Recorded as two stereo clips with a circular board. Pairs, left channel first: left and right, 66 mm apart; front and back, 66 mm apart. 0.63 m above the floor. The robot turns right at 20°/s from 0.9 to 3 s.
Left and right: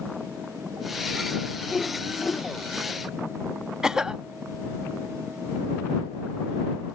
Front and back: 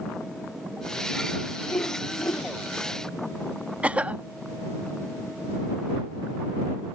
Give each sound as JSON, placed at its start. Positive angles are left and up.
{"t": 1.6, "sound": "a whoosh", "azimuth_deg": 15}
{"t": 3.8, "sound": "a cough", "azimuth_deg": -155}